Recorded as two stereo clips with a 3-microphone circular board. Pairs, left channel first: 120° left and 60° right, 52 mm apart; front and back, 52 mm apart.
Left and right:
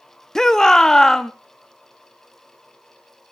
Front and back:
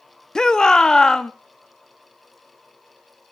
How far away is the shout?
About 0.5 m.